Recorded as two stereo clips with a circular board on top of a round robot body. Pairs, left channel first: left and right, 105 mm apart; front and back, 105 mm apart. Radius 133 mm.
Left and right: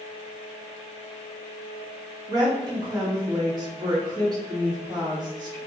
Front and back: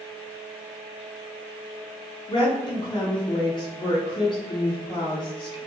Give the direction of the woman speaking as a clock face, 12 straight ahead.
1 o'clock.